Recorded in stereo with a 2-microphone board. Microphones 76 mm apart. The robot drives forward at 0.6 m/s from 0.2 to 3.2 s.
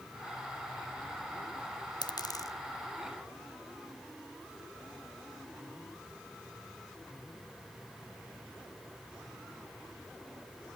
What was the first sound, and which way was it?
A dropped coin, 65° left (ahead or behind).